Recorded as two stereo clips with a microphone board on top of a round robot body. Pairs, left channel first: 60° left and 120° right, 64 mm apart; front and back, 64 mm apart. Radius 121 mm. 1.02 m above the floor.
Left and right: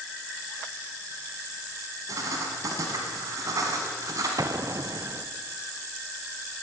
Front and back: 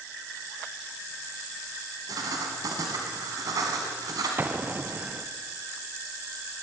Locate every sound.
2.1 s writing: 155° right, 1.3 m
4.4 s an explosion: 125° right, 0.8 m